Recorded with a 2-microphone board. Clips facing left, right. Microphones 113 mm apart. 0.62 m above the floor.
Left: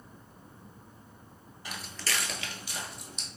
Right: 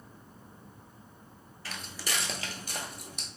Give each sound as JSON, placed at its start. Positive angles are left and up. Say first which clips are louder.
{"t": 1.6, "sound": "footsteps", "louder": "left 1 dB", "side_deg": 20, "distance_m": 0.6}